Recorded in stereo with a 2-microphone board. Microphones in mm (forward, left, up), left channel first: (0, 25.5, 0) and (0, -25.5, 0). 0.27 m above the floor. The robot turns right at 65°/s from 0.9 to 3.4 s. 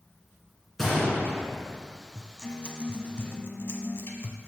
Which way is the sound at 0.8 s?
5° left (ahead or behind).